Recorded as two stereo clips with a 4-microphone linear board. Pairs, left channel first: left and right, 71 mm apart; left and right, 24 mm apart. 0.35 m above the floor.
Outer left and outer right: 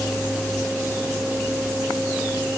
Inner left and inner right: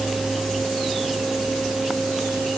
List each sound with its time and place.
Only background noise.